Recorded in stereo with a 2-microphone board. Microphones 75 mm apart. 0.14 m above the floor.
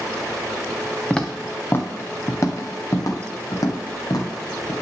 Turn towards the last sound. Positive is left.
turn(degrees=65)  # may be behind; listen again after turning